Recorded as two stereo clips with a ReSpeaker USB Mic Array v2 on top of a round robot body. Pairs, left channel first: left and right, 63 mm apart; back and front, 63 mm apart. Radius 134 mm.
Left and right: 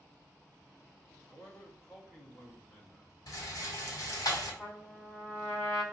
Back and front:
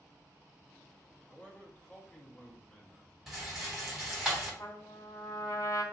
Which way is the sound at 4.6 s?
160° left.